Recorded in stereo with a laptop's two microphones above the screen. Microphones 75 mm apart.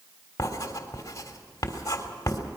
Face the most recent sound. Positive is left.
turn(degrees=45)  # may be behind; listen again after turning